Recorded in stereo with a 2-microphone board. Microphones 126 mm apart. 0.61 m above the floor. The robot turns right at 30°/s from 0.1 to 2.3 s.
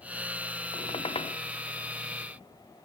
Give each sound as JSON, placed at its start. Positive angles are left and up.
{"t": 0.7, "sound": "a squeak", "side_deg": 55, "distance_m": 0.5}